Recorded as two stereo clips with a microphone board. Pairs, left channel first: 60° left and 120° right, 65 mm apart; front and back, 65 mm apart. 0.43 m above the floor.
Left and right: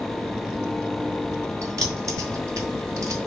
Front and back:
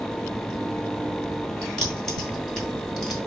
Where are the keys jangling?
80° right, 3 m; by 3.2 s 85° right, 2 m.